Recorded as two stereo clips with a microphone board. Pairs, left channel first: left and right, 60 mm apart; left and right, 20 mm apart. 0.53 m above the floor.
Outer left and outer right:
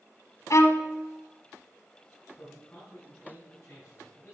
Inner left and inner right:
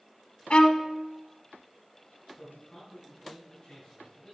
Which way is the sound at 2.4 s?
30° left (ahead or behind).